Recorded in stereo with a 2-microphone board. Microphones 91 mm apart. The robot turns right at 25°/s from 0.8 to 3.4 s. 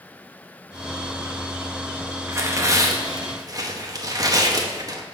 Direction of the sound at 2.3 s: 30° right (ahead or behind).